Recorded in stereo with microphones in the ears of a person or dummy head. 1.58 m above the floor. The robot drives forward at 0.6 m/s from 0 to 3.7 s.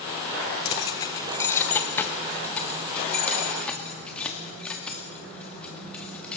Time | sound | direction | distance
0.7 | keys jangling | 25° left (ahead or behind) | 0.7 m